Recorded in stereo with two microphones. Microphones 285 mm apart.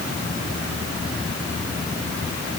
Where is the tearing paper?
I don't hear tearing paper.